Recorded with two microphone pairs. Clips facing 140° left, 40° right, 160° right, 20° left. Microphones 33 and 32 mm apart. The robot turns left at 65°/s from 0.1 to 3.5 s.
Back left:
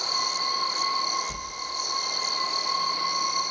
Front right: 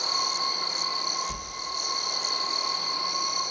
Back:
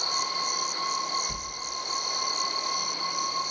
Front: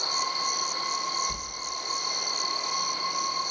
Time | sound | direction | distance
1.3 | a sliding door | 120° right | 1.8 m